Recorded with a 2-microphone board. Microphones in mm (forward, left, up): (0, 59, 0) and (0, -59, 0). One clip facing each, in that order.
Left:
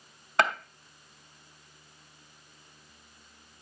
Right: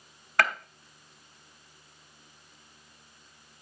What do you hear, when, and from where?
0.4 s a gunshot: 20° left (ahead or behind), 1.0 m